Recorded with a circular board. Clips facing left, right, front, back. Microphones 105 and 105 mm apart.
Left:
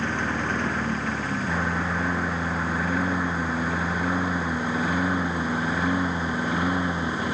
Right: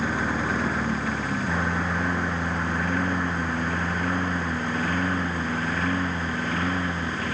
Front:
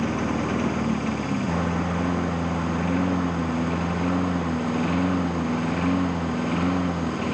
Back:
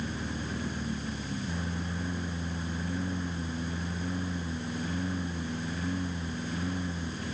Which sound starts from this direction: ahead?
A lawn mower, at 0.0 s.